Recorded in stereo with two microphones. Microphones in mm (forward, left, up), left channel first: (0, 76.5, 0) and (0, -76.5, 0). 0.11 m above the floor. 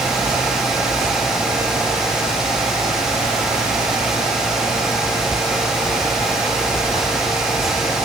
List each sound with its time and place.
Only background noise.